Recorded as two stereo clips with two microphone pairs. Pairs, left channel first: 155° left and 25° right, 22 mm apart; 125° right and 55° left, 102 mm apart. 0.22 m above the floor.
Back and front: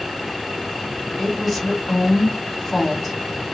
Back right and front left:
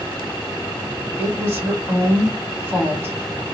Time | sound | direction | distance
1.2 | a woman speaking | 80° left | 1.5 m